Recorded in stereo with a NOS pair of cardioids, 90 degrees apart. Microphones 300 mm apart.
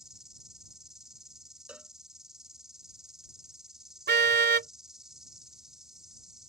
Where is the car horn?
40° right.